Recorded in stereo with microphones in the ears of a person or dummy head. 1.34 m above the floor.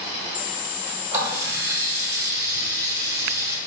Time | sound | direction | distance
1.1 | a running tap | 20° right (ahead or behind) | 1.6 m